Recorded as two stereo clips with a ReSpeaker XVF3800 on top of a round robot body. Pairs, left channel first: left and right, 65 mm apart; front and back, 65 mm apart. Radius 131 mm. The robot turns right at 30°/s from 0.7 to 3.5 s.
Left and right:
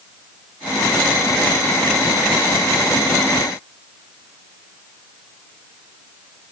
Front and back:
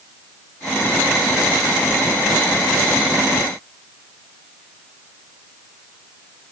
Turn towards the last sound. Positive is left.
No sound to turn to.